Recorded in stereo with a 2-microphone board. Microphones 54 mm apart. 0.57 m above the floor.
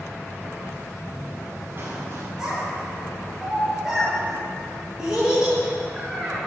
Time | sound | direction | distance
1.1 | running footsteps | 40° right (ahead or behind) | 4 m
2.4 | a child speaking | 10° right (ahead or behind) | 5 m